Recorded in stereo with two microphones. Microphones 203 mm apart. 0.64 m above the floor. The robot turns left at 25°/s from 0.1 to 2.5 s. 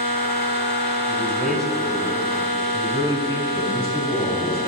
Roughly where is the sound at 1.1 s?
Ahead.